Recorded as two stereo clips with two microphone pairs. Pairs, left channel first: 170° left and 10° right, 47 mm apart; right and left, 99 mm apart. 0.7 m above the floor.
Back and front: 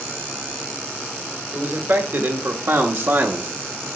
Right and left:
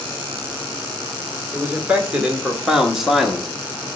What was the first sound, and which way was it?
A man speaking, 20° left.